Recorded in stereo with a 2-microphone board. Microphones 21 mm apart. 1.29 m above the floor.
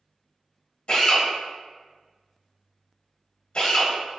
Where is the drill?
60° left (ahead or behind), 1.5 m.